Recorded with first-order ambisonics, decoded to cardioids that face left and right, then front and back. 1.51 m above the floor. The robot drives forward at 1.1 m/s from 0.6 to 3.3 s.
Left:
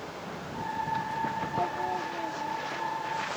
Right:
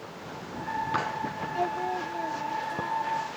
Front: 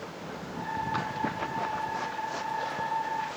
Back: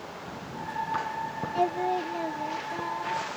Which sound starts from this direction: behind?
Singing, at 1.6 s.